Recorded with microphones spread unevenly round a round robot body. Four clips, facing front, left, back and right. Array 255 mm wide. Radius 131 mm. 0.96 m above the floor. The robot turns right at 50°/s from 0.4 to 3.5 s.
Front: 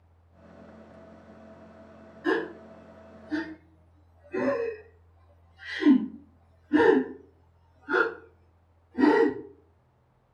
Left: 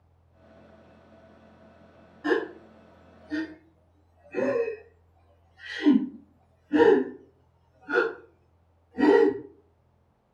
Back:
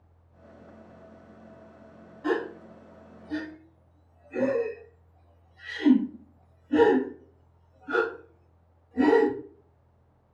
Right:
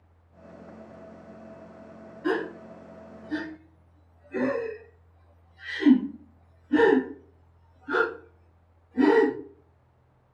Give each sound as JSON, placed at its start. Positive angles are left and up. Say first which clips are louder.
{"t": 2.2, "sound": "a gasp", "louder": "left 1 dB, front 1 dB", "azimuth_deg": 130, "distance_m": 1.2}